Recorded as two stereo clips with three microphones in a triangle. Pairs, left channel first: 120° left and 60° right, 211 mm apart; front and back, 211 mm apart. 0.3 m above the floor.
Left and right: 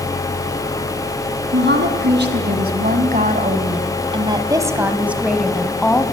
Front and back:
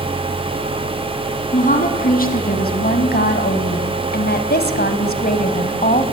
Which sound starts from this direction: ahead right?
A woman speaking, at 1.5 s.